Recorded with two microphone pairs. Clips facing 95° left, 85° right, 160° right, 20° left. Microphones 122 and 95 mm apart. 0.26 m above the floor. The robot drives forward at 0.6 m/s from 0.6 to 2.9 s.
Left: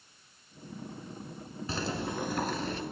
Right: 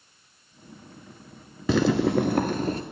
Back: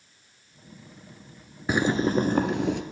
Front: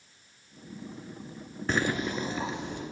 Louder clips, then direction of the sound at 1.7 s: Right 14 dB, back 6 dB; 80° right.